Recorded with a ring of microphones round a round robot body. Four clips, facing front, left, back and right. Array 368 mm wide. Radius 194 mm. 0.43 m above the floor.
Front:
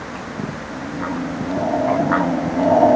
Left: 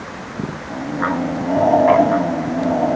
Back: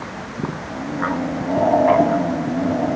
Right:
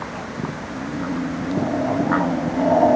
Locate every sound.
Only background noise.